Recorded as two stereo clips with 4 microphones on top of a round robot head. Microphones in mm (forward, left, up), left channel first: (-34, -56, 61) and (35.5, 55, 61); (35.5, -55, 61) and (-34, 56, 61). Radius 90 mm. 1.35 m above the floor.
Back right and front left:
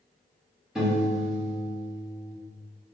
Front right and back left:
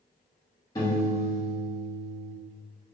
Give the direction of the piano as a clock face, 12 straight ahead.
1 o'clock.